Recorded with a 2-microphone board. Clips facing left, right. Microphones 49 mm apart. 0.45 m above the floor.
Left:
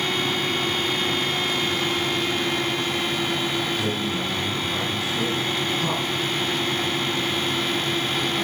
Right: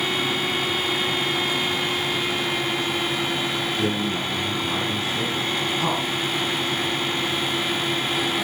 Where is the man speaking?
35° right (ahead or behind), 4 m.